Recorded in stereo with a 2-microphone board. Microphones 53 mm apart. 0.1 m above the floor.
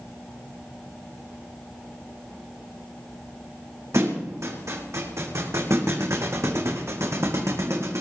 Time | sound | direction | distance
3.9 | a thud | 65° right (ahead or behind) | 3 m